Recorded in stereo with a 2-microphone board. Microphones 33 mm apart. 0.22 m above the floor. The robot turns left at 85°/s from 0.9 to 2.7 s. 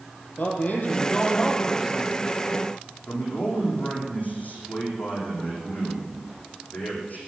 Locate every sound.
0.4 s a man speaking: 50° left, 5.5 m; by 2.3 s 65° right, 5.5 m
3.1 s a man speaking: 55° left (ahead or behind), 9 m